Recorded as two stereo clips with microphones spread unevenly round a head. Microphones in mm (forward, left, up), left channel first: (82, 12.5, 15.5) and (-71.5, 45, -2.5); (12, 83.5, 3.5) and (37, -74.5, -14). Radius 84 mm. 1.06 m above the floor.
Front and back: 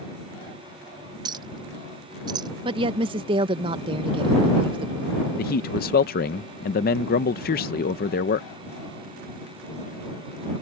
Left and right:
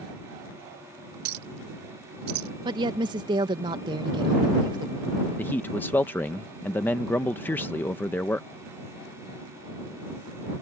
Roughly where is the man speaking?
Ahead.